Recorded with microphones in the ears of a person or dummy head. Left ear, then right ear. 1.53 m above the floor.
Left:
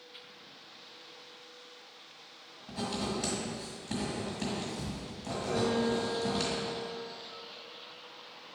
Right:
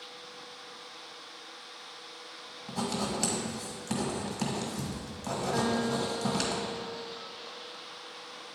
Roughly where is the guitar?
Right.